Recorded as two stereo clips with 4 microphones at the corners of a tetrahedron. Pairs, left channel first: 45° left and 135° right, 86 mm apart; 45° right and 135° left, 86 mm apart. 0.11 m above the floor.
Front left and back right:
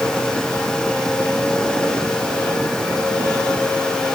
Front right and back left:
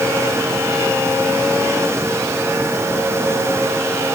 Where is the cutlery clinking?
No cutlery clinking in this recording.